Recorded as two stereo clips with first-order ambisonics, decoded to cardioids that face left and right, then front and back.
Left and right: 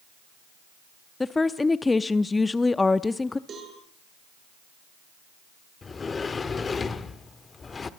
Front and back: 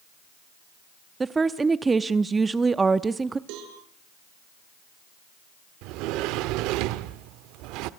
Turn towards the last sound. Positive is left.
turn(degrees=160)